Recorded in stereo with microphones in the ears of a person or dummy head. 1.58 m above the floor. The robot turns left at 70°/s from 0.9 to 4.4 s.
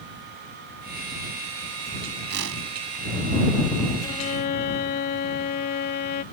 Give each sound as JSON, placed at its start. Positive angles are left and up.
{"t": 2.3, "sound": "a whoosh", "side_deg": -55}
{"t": 4.0, "sound": "a violin", "side_deg": 20}